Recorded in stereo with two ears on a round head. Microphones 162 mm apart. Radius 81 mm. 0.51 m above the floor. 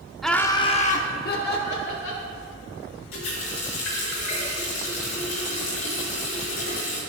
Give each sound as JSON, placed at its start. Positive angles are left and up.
{"t": 0.2, "sound": "laughter", "side_deg": 0, "distance_m": 0.7}
{"t": 3.1, "sound": "a running tap", "side_deg": 80, "distance_m": 4.0}